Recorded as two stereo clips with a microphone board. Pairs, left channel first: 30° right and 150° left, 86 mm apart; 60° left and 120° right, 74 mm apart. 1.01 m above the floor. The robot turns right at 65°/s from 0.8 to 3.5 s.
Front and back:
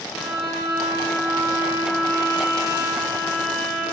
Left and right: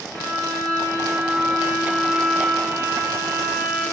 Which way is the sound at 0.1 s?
120° right.